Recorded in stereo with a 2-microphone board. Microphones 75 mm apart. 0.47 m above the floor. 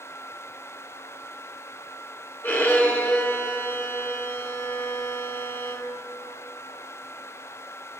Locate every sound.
2.4 s a violin: 30° left (ahead or behind), 0.7 m